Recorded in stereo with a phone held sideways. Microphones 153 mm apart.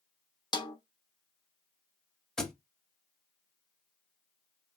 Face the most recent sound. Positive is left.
turn(degrees=5)  # may be behind; listen again after turning